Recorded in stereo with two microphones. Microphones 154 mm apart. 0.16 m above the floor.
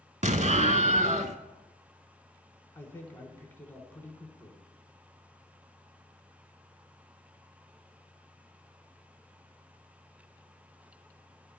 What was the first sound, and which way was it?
An explosion, 55° right (ahead or behind).